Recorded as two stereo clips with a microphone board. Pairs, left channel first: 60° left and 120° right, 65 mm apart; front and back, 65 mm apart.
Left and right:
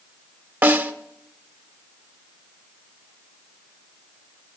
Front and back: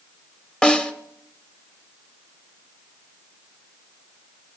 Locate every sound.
0.6 s a snare drum: 70° right, 1.0 m